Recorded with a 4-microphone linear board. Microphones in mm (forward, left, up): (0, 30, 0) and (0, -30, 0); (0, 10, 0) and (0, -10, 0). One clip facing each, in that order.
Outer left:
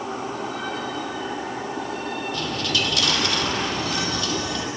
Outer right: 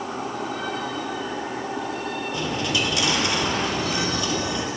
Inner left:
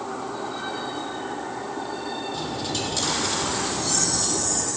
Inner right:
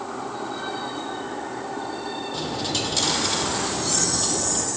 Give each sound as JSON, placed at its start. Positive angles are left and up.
{"t": 2.3, "sound": "a dropped coin", "side_deg": -20, "distance_m": 2.0}